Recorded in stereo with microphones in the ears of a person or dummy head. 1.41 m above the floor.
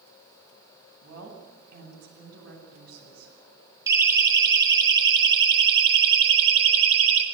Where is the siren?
15° right (ahead or behind), 4 m; by 7.2 s 40° right (ahead or behind), 5 m.